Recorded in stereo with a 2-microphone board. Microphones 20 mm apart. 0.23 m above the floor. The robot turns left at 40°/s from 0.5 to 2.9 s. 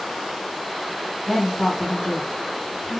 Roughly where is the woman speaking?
Behind.